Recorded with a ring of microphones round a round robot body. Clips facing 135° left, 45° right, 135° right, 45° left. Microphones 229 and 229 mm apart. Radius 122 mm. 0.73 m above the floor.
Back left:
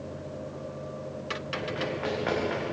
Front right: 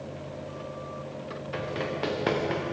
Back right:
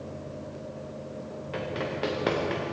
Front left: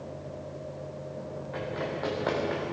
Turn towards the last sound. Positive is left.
turn(degrees=-85)